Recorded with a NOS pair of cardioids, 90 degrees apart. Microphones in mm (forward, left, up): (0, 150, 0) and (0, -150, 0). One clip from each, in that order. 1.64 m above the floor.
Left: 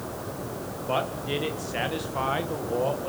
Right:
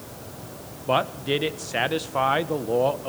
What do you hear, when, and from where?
0.9 s a man speaking: 35° right, 1.7 m